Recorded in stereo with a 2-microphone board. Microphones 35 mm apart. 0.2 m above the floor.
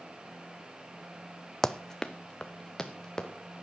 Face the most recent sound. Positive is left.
turn(degrees=15)  # may be behind; listen again after turning